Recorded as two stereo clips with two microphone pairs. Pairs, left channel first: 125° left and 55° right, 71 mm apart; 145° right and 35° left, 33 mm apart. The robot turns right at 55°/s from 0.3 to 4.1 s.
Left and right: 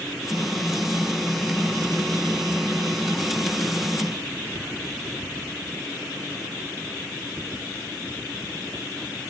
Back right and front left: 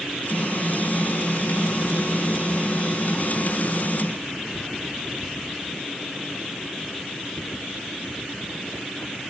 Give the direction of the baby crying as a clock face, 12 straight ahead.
I don't hear a baby crying.